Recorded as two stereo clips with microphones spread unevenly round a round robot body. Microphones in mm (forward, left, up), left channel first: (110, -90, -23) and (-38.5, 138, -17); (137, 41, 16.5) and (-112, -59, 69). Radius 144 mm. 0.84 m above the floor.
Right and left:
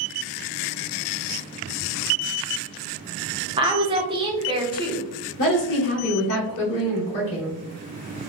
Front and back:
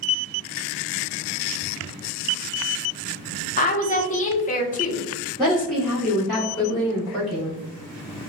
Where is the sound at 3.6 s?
55° left, 0.8 m.